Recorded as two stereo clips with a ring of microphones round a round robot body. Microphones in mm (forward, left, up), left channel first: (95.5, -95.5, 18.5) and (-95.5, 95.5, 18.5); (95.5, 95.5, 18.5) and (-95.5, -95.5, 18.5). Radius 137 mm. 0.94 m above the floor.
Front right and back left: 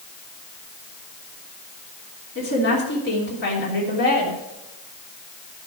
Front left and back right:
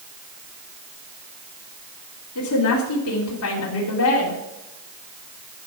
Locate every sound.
2.4 s a woman speaking: 5° left, 3 m